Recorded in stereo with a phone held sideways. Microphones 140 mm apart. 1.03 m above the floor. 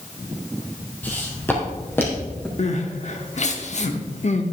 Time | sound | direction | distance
1.0 | footsteps | 10° left (ahead or behind) | 2 m
2.6 | crying | 55° left (ahead or behind) | 0.9 m